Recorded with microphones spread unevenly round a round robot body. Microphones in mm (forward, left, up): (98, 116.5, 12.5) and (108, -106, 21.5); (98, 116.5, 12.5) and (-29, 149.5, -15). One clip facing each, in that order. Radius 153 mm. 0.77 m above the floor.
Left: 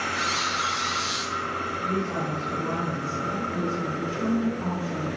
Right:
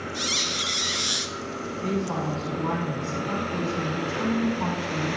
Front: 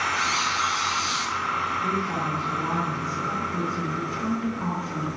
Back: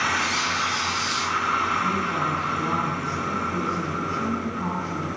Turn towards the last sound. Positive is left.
turn(degrees=-85)